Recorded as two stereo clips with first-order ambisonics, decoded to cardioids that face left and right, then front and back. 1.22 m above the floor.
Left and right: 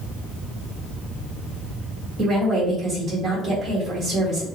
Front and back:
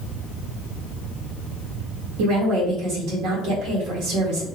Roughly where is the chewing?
I don't hear chewing.